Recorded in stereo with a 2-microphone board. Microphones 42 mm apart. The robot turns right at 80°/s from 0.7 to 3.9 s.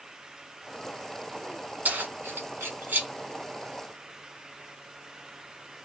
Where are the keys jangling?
40° right (ahead or behind), 1.4 m.